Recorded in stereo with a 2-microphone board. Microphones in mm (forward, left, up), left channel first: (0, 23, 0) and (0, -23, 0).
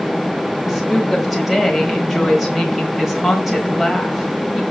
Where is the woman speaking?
5° right (ahead or behind), 1.5 m.